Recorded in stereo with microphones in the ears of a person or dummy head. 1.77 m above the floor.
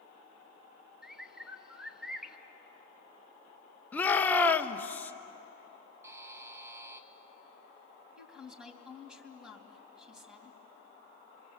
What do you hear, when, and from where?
1.0 s a bird: 5° left (ahead or behind), 1.1 m
3.9 s a shout: 20° left (ahead or behind), 1.1 m
6.0 s a buzzer: 5° right (ahead or behind), 1.1 m
8.2 s a woman speaking: 5° left (ahead or behind), 3 m